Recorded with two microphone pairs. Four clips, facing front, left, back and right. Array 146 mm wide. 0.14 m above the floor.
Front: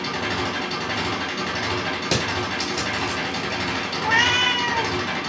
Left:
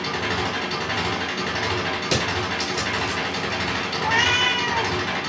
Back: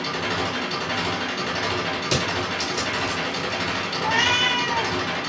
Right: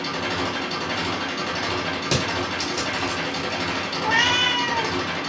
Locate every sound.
0.0 s an engine running: 80° left, 1.0 m
2.1 s crushing: 30° right, 1.1 m
4.0 s a cat meowing: 10° right, 0.5 m